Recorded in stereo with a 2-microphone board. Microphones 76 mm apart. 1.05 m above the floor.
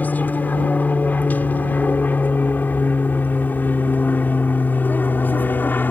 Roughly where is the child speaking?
No child speaking in this recording.